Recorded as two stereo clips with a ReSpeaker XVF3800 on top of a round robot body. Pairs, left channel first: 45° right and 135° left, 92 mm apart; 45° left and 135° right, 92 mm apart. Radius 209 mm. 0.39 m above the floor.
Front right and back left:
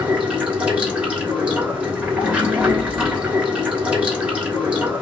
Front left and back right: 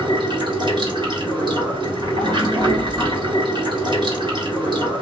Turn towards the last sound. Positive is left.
turn(degrees=-150)